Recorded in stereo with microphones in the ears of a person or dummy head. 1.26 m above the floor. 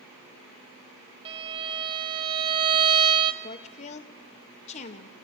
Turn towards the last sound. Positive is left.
turn(degrees=40)  # may be behind; listen again after turning